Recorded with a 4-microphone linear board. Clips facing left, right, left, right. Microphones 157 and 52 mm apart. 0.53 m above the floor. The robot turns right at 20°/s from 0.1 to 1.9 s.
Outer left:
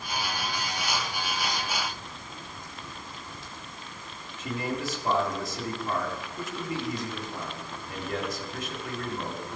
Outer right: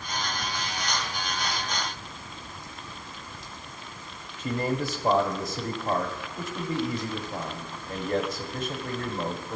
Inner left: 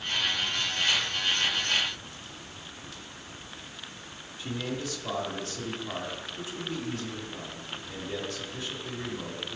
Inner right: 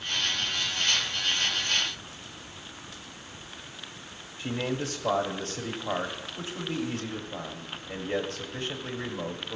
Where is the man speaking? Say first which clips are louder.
Outer right 4 dB, inner right 3 dB; 30° right (ahead or behind), 1.5 m.